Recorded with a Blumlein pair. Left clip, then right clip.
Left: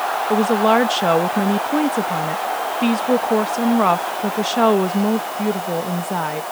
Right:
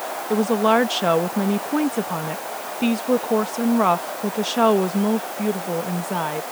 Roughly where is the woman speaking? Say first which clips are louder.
Left 2 dB; ahead.